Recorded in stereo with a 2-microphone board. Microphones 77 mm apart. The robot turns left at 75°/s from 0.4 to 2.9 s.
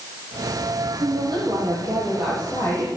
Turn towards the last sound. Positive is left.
turn(degrees=135)